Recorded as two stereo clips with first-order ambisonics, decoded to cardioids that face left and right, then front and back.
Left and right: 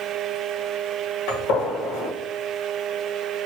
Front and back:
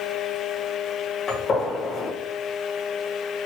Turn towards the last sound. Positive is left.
turn(degrees=70)